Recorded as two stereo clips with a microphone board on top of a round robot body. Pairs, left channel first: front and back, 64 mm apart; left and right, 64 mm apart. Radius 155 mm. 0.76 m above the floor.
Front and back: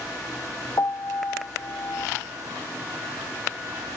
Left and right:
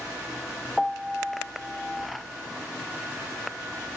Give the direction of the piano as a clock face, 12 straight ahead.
12 o'clock.